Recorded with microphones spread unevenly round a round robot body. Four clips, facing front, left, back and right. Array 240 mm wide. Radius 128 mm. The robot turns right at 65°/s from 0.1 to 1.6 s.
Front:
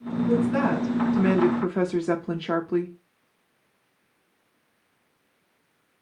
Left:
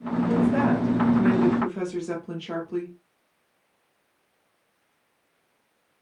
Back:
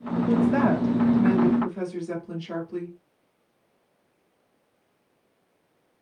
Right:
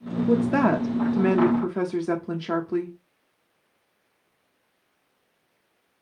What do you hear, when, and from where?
0.3 s a woman speaking: 105° right, 0.8 m; by 3.0 s 20° right, 0.8 m